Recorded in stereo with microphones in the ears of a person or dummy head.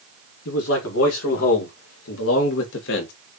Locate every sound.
0.5 s a man speaking: 75° left (ahead or behind), 2.5 m; by 3.1 s 55° left (ahead or behind), 1.2 m